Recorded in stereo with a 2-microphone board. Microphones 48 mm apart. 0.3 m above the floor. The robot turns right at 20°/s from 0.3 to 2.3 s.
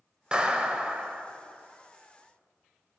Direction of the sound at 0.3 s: 20° right (ahead or behind).